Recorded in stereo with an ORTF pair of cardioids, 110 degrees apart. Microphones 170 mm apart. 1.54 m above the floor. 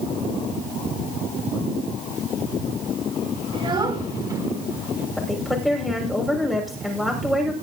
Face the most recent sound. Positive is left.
turn(degrees=0)